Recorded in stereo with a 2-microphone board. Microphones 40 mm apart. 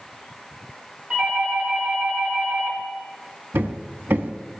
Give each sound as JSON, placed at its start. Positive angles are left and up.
{"t": 1.1, "sound": "a doorbell", "side_deg": -35, "distance_m": 4.0}
{"t": 3.5, "sound": "hammering", "side_deg": -65, "distance_m": 0.8}